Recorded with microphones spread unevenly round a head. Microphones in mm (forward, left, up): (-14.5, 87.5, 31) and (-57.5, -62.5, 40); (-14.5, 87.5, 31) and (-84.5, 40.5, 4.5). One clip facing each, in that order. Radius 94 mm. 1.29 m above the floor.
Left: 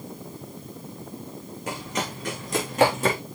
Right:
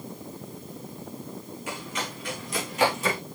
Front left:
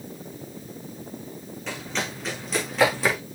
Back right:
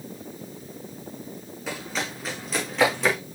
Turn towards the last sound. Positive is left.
turn(degrees=115)